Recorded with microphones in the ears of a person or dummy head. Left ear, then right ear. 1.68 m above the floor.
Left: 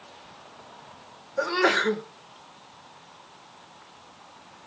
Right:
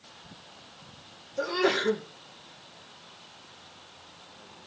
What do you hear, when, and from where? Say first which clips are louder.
1.4 s a sneeze: left 4 dB; 50° left (ahead or behind), 2 m